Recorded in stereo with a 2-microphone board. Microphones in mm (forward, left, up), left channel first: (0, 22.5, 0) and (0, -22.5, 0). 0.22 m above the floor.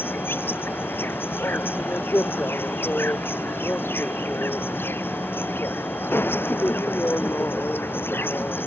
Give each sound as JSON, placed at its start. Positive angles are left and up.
{"t": 0.0, "sound": "an insect", "side_deg": 55}